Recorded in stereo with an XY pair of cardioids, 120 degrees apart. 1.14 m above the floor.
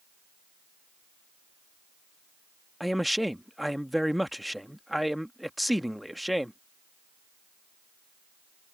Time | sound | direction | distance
2.8 | a man speaking | straight ahead | ?